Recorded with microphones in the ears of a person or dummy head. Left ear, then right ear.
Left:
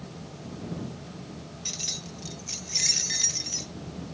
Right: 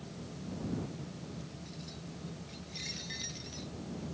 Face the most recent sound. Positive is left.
turn(degrees=30)  # may be behind; listen again after turning